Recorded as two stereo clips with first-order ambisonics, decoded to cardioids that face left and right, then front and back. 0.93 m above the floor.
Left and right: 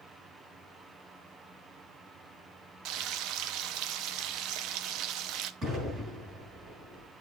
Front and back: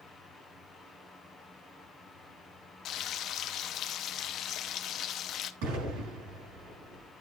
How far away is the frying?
About 0.7 m.